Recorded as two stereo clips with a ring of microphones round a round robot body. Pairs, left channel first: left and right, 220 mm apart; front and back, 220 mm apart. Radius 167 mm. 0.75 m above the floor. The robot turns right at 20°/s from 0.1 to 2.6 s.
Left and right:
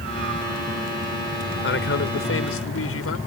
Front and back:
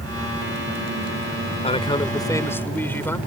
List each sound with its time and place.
1.6 s a man speaking: 60° left; by 3.2 s 80° left